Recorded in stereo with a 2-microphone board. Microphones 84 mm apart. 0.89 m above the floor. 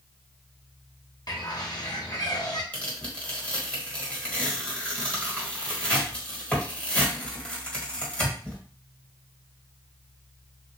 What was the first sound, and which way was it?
A bird, 55° left (ahead or behind).